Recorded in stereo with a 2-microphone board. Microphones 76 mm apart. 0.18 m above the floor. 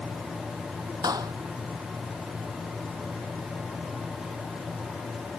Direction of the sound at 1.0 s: 60° right (ahead or behind).